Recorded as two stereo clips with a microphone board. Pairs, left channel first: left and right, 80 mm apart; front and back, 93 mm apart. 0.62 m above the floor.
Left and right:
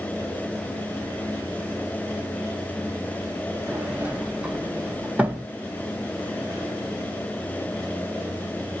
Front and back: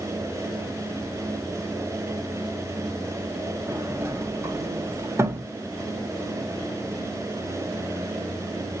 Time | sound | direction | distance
3.7 | a sliding door | 150° right | 1.0 m